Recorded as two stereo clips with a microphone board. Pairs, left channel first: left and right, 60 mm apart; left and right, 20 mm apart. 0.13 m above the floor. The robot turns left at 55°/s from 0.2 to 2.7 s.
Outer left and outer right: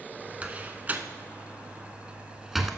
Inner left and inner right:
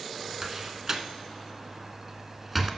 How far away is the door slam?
About 0.8 m.